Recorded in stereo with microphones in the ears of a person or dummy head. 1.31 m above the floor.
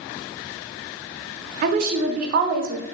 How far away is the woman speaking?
About 0.5 m.